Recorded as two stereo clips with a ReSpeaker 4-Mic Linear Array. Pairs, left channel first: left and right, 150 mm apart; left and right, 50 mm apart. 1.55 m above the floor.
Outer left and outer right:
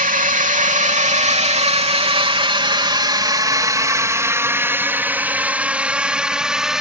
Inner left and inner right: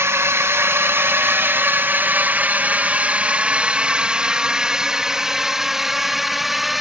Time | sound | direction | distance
0.0 | a drone | 65° right (ahead or behind) | ?